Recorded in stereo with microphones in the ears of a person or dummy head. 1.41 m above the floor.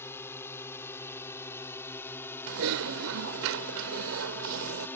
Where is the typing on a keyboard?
65° right (ahead or behind).